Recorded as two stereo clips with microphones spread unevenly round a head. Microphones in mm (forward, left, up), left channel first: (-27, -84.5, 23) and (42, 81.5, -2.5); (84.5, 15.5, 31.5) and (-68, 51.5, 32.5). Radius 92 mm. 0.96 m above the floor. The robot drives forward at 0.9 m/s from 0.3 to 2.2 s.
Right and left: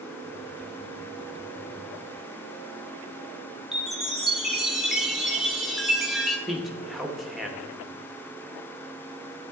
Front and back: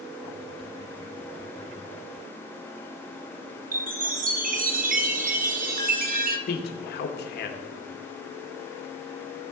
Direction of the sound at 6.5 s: 20° right.